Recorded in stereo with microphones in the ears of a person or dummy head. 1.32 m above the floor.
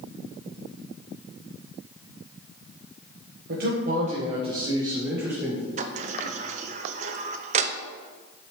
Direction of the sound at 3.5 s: 50° right (ahead or behind).